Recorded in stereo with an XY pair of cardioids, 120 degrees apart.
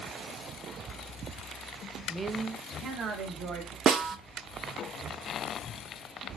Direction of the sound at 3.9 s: 50° right.